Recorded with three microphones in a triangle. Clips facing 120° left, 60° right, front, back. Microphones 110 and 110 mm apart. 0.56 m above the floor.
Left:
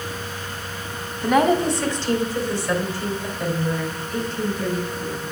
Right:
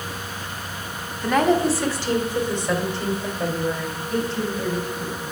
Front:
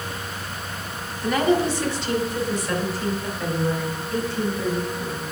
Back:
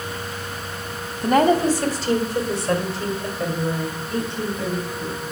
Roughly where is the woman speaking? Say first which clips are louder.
Left 1 dB, back 4 dB; behind.